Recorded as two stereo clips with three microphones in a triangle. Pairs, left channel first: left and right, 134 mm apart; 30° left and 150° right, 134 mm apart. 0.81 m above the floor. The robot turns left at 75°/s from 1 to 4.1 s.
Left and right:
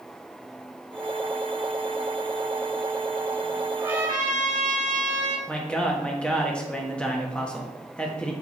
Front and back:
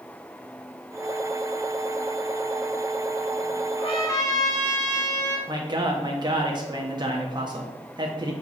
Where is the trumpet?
10° right, 1.6 m; by 5.4 s 35° right, 1.6 m.